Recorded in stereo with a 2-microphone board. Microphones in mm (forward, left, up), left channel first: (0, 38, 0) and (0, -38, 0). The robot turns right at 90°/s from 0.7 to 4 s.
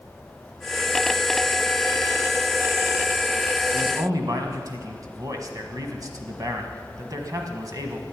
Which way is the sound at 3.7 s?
40° right (ahead or behind).